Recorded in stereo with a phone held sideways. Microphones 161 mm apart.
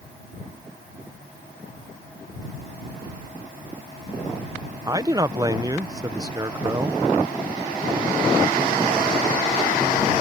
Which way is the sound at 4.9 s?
25° right (ahead or behind).